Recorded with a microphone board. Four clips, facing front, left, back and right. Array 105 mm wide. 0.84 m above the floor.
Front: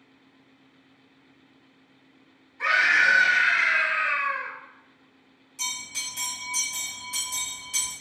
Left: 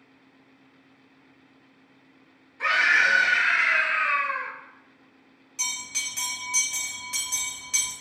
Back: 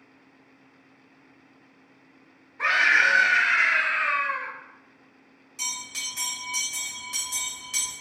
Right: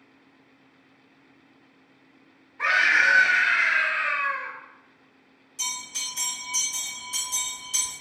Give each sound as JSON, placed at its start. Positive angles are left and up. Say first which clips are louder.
{"t": 2.6, "sound": "a scream", "louder": "right 1 dB, even", "azimuth_deg": -130, "distance_m": 1.0}
{"t": 5.6, "sound": "a bell", "louder": "even, even", "azimuth_deg": 110, "distance_m": 1.2}